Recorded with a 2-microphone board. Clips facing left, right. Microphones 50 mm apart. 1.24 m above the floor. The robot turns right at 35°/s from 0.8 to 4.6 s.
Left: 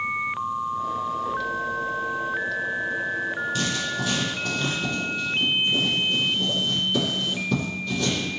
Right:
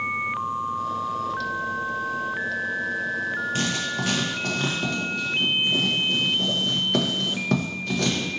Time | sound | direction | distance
3.5 | writing | 35° right (ahead or behind) | 0.8 m